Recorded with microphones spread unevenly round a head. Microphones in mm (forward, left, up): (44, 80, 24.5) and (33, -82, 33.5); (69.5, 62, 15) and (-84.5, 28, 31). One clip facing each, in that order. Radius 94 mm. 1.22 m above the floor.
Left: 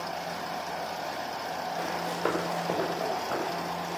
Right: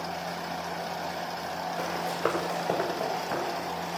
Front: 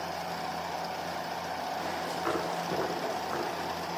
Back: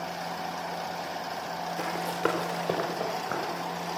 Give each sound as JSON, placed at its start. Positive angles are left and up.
{"t": 1.8, "sound": "running footsteps", "azimuth_deg": 175, "distance_m": 4.5}